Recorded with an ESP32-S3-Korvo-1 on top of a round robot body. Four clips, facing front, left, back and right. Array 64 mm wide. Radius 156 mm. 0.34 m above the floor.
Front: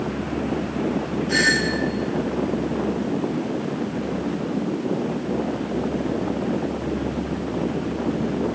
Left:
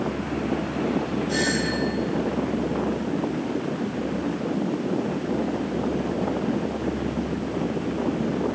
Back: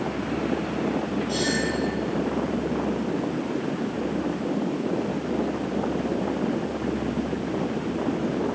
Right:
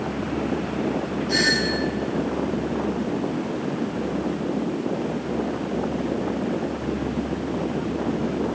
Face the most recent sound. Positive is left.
turn(degrees=-5)